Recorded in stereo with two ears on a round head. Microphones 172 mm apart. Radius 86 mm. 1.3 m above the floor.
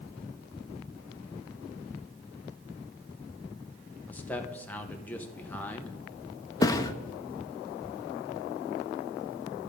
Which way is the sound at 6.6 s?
20° left (ahead or behind).